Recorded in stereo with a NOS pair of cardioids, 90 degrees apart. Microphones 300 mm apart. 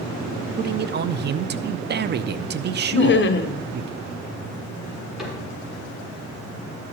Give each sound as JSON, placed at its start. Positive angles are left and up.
{"t": 0.6, "sound": "a man speaking", "azimuth_deg": -35, "distance_m": 0.5}
{"t": 2.9, "sound": "laughter", "azimuth_deg": 40, "distance_m": 0.9}
{"t": 5.2, "sound": "a cupboard door", "azimuth_deg": 0, "distance_m": 4.0}